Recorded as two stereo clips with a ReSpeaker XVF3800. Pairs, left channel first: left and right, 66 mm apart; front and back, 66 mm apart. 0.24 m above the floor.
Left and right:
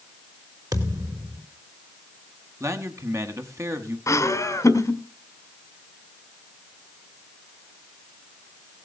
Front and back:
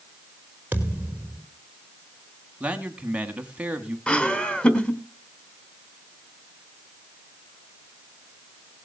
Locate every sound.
0.7 s a thud: 115° right, 3.5 m
2.6 s a man speaking: 110° right, 1.8 m
4.1 s laughter: 70° left, 2.0 m